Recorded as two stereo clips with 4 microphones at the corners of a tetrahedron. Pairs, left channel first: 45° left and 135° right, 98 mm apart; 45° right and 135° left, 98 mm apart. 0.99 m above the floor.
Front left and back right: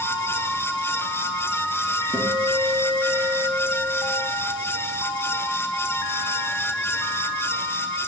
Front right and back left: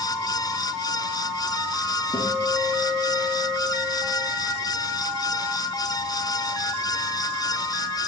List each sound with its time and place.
2.1 s a guitar: 70° right, 4.5 m